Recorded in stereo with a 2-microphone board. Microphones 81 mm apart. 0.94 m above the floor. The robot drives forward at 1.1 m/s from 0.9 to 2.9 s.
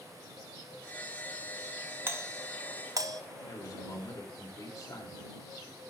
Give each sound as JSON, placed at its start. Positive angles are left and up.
{"t": 2.1, "sound": "a doorbell", "side_deg": -30, "distance_m": 1.1}
{"t": 3.4, "sound": "a man speaking", "side_deg": 45, "distance_m": 4.0}